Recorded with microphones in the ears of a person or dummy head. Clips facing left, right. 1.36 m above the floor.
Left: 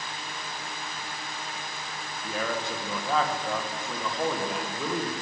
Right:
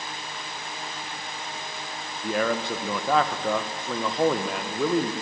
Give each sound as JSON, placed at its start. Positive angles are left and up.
{"t": 2.2, "sound": "a man speaking", "side_deg": -50, "distance_m": 1.3}